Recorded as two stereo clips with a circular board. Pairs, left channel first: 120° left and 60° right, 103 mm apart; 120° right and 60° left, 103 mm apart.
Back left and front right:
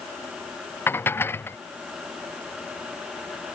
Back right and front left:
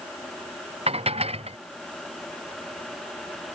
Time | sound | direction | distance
0.9 | dishes clattering | 50° left | ?